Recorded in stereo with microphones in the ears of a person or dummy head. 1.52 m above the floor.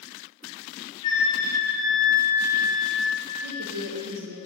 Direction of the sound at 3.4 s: 65° right (ahead or behind).